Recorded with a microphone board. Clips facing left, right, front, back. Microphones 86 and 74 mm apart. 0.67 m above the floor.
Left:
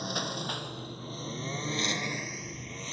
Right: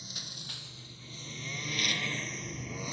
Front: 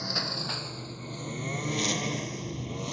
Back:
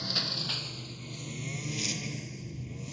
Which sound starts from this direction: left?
A lawn mower, at 0.0 s.